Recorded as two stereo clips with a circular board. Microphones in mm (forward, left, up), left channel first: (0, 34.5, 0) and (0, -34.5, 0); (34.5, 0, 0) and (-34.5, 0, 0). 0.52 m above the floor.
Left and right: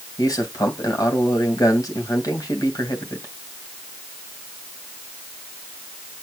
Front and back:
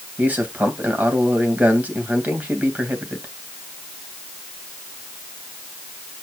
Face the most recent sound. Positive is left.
turn(degrees=115)